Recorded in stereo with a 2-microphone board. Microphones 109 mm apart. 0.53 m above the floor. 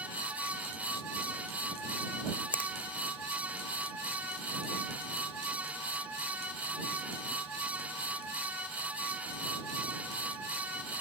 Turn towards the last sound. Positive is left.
turn(degrees=15)  # may be behind; listen again after turning